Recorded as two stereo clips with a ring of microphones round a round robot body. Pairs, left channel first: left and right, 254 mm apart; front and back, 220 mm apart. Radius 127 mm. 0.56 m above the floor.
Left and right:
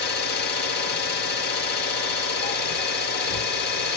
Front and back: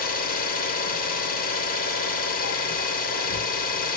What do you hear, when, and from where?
0.0 s an engine running: 45° left, 1.4 m